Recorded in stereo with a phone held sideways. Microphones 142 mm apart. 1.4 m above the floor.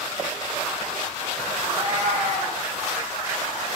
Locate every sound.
1.6 s a cat meowing: 50° right (ahead or behind), 2.5 m